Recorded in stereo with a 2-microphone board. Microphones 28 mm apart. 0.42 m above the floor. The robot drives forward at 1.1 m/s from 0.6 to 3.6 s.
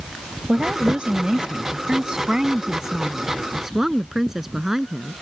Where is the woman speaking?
55° right (ahead or behind); by 5.1 s 20° right (ahead or behind).